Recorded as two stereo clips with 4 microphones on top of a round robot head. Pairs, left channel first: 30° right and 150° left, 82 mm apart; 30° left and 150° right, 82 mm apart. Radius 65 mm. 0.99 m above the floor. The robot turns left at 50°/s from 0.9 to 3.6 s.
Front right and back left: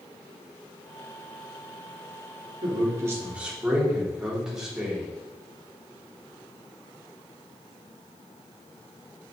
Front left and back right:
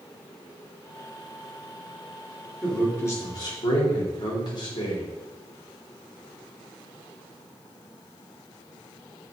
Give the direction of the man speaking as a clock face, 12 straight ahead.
8 o'clock.